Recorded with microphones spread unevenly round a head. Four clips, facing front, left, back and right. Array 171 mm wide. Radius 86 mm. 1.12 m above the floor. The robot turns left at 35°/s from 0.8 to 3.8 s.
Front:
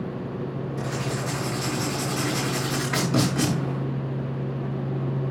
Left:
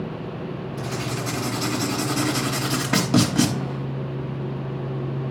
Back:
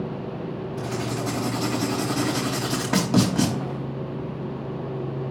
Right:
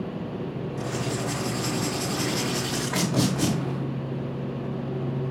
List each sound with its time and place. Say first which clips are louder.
0.8 s writing: even, back 2 dB; straight behind, 4 m; by 3.5 s 85° left, 4 m